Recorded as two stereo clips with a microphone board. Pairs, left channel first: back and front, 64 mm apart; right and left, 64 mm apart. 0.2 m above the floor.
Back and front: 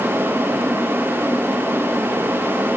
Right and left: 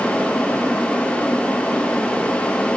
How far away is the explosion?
I don't hear an explosion.